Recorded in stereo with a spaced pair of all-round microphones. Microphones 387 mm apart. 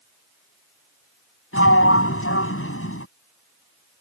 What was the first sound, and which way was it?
A sliding door, 35° left (ahead or behind).